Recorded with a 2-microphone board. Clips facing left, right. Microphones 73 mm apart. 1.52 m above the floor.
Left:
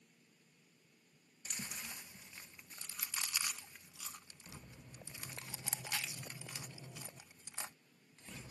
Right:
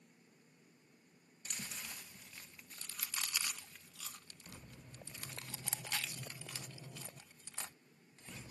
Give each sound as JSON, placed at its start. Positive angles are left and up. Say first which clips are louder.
{"t": 1.4, "sound": "chewing", "louder": "left 1 dB", "side_deg": 15}